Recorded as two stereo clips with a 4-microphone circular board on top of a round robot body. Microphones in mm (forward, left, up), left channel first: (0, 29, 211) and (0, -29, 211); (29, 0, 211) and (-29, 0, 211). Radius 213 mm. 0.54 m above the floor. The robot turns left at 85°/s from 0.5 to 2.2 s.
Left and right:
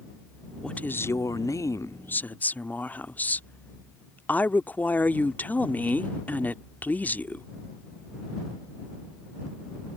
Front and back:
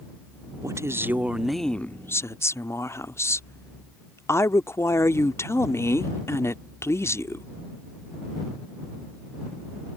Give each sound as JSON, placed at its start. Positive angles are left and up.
{"t": 0.6, "sound": "a woman speaking", "azimuth_deg": 165}